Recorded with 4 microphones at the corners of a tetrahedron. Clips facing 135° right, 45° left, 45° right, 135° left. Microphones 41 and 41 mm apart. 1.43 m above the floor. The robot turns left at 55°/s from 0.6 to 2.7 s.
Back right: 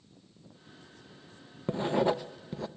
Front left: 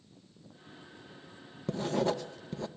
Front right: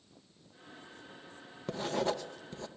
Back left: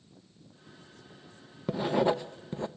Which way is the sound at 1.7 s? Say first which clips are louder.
Back right 3 dB, back left 6 dB; 160° right.